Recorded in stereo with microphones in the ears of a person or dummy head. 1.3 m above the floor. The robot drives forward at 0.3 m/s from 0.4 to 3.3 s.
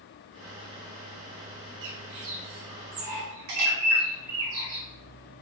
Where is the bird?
65° right (ahead or behind), 1.0 m; by 4.8 s 50° right (ahead or behind), 1.2 m.